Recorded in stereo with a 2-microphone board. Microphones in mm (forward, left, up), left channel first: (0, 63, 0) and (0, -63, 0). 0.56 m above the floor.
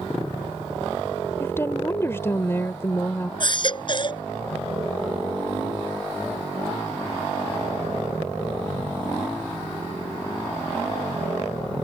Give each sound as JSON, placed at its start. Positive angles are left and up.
{"t": 1.4, "sound": "a woman speaking", "side_deg": 20}
{"t": 3.4, "sound": "a baby crying", "side_deg": 40}